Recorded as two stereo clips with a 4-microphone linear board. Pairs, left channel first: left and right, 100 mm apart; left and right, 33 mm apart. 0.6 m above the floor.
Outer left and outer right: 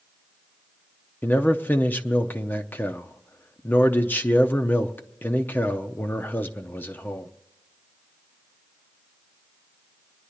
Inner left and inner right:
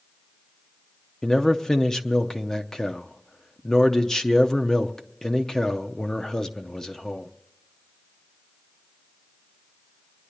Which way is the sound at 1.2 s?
20° left (ahead or behind).